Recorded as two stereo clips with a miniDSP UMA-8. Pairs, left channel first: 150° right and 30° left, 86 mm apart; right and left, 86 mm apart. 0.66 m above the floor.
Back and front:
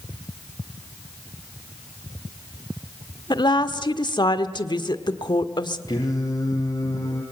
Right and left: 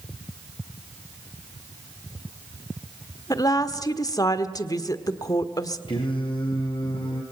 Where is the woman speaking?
130° right, 1.4 m.